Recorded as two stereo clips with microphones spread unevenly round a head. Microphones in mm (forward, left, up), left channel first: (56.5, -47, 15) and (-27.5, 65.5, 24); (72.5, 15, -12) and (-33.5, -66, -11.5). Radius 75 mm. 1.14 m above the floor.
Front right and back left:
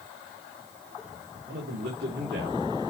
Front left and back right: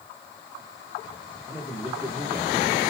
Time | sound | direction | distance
1.5 | a man speaking | 125° left | 2.5 m